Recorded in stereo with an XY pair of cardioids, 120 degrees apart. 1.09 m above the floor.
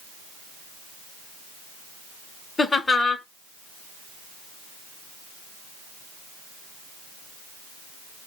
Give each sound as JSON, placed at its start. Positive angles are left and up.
{"t": 2.6, "sound": "laughter", "azimuth_deg": 20, "distance_m": 0.8}